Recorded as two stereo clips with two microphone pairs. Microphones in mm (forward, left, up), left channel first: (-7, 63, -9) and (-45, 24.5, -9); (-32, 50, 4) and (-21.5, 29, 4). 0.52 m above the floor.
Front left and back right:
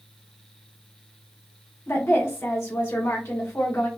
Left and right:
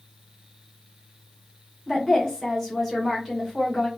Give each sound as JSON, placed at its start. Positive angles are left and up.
{"t": 1.9, "sound": "a woman speaking", "azimuth_deg": 25, "distance_m": 2.5}